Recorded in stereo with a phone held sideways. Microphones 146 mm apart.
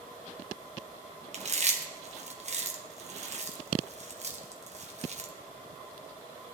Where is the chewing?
50° right (ahead or behind), 1.3 m.